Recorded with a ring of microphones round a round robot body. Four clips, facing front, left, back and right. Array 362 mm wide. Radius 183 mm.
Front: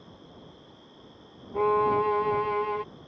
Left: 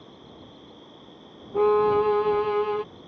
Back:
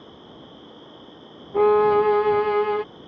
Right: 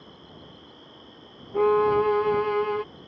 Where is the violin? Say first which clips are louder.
Even, back 7 dB; 175° left.